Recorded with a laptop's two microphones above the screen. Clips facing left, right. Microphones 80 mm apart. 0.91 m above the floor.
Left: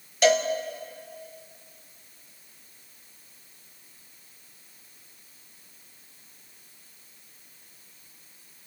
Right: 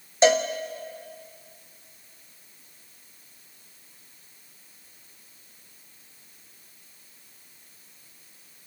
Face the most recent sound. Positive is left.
turn(degrees=-30)  # may be behind; listen again after turning